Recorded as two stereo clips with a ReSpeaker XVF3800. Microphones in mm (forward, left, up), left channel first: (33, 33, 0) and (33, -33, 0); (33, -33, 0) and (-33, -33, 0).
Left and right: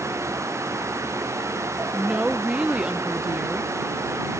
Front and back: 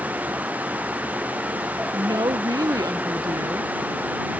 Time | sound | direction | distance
1.9 | a woman speaking | 165° right | ?